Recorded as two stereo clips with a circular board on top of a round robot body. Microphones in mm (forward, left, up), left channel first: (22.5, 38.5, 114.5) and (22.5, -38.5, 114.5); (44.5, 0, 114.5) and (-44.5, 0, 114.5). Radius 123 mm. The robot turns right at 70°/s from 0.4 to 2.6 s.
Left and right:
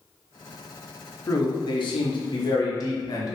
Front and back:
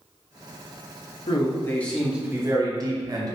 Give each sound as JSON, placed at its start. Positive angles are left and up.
{"t": 1.3, "sound": "a man speaking", "azimuth_deg": 40, "distance_m": 1.1}